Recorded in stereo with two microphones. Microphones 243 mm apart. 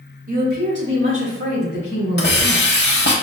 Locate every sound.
0.3 s a woman speaking: 35° right (ahead or behind), 1.4 m; by 2.7 s 75° right (ahead or behind), 3 m
2.2 s a hiss: 45° left (ahead or behind), 0.8 m